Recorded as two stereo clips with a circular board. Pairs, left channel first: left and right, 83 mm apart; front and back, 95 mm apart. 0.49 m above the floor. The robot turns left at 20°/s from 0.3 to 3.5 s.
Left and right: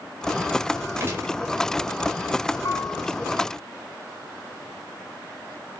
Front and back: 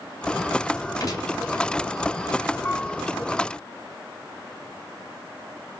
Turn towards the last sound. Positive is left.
turn(degrees=40)